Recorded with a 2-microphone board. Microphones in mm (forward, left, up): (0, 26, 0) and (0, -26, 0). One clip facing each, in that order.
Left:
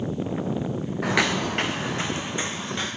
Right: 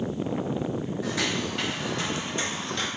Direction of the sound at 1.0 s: 60° left (ahead or behind).